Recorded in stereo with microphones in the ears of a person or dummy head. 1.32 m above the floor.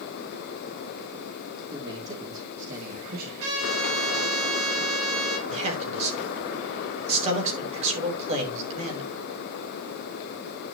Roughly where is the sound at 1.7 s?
Right.